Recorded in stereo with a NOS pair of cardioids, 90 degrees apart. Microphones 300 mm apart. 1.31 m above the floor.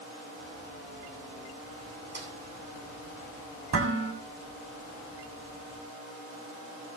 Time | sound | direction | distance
2.1 | a snare drum | 35° right | 10 m
3.7 | dishes clattering | 50° right | 7 m